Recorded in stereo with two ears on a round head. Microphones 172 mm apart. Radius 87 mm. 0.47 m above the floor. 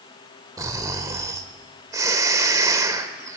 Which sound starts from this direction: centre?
Snoring, at 0.6 s.